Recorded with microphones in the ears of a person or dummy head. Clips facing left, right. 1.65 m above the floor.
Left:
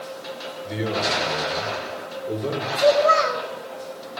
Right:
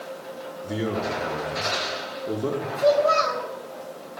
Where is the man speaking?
55° right (ahead or behind), 4.5 m.